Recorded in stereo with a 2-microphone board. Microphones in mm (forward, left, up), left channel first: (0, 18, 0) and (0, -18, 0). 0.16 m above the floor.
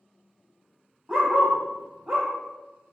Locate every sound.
1.1 s a dog barking: 15° right (ahead or behind), 1.8 m